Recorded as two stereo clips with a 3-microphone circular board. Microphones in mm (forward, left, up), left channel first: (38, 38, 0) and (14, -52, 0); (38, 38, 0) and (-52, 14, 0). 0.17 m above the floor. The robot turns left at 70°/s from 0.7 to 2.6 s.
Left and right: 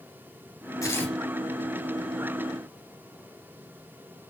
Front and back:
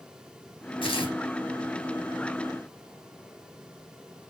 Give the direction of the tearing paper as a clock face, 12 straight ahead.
11 o'clock.